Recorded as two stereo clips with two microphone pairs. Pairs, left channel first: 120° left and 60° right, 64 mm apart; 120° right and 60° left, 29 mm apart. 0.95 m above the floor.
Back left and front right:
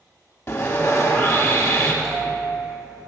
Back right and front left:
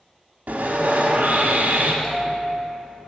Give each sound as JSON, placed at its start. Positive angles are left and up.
{"t": 0.5, "sound": "sawing", "azimuth_deg": 70, "distance_m": 1.0}
{"t": 2.0, "sound": "a bell", "azimuth_deg": 150, "distance_m": 2.5}